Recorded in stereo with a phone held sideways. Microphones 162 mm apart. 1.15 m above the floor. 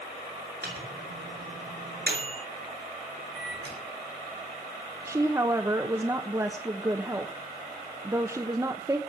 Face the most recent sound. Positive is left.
turn(degrees=-20)  # may be behind; listen again after turning